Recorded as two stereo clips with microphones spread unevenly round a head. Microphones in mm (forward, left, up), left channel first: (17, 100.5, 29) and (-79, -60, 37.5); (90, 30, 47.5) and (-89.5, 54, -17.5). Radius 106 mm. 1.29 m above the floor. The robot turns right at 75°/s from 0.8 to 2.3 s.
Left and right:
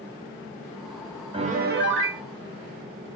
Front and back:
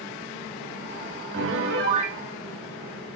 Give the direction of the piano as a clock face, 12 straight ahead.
6 o'clock.